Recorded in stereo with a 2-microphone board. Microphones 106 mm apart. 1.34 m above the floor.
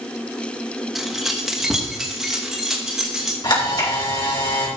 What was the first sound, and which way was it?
Keys jangling, centre (ahead or behind).